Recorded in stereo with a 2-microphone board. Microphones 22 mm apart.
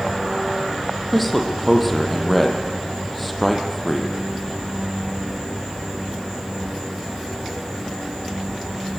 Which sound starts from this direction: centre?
A man speaking, at 1.1 s.